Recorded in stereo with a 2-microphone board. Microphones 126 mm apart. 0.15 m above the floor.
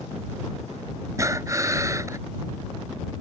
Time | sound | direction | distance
1.2 | breathing | 25° right (ahead or behind) | ?